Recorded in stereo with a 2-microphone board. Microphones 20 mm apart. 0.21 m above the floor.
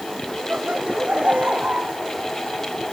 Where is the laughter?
85° right.